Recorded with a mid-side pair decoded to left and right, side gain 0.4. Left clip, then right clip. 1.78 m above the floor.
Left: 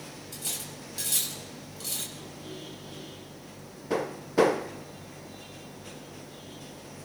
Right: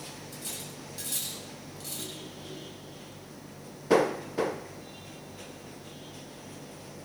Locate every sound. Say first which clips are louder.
0.3 s cutlery clinking: left 6 dB; 40° left, 7.5 m